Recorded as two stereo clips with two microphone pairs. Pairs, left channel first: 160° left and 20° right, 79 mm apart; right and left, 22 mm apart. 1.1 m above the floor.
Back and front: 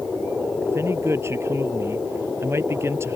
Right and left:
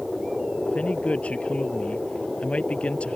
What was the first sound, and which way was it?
A man speaking, 75° right.